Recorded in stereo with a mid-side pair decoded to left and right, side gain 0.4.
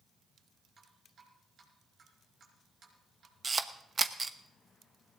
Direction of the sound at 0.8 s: 65° right.